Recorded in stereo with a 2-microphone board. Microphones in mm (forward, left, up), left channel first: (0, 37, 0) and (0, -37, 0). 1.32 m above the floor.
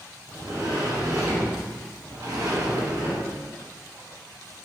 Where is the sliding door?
45° right (ahead or behind), 0.7 m.